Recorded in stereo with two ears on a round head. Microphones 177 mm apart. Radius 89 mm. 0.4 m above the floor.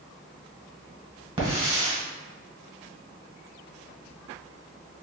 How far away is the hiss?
About 1.2 m.